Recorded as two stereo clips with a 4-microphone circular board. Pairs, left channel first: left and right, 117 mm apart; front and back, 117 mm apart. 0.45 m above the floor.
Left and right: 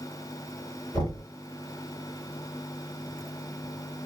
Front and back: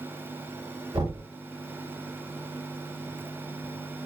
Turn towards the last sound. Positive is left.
turn(degrees=130)